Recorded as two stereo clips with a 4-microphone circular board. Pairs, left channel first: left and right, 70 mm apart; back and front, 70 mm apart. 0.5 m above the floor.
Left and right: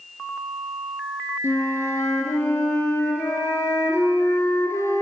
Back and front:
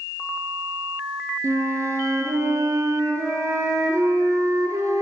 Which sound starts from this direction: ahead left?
A flute, at 1.4 s.